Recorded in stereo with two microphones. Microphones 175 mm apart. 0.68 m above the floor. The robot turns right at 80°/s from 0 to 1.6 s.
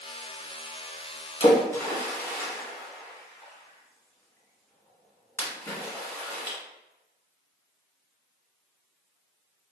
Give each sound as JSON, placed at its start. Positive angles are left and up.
{"t": 1.4, "sound": "a splash", "side_deg": 30, "distance_m": 0.9}